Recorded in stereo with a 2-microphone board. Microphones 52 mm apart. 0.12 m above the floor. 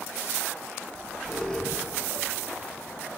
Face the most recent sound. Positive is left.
turn(degrees=10)  # may be behind; listen again after turning